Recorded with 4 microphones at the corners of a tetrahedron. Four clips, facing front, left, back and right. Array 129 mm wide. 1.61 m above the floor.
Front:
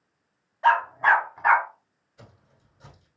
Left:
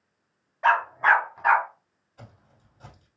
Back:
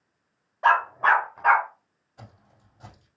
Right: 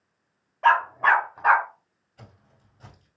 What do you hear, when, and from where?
0.6 s a dog barking: 160° right, 1.5 m; by 1.7 s 105° right, 1.5 m
2.2 s footsteps: 175° right, 3 m